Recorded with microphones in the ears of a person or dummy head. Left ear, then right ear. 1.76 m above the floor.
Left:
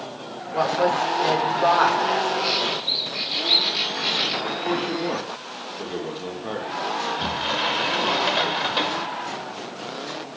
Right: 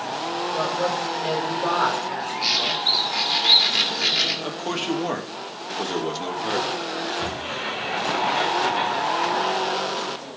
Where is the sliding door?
45° left (ahead or behind), 2.5 m.